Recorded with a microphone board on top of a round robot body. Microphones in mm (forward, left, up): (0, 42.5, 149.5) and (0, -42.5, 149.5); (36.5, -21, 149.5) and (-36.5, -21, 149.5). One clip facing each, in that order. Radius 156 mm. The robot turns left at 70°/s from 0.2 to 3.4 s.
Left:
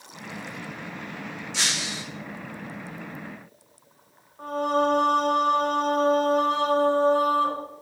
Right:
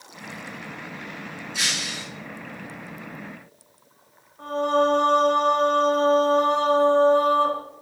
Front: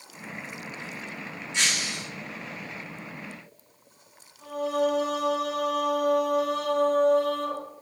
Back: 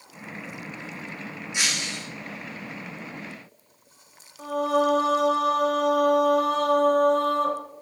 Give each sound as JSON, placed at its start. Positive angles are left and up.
{"t": 1.5, "sound": "breaking glass", "azimuth_deg": 105, "distance_m": 3.5}
{"t": 4.4, "sound": "singing", "azimuth_deg": 170, "distance_m": 7.0}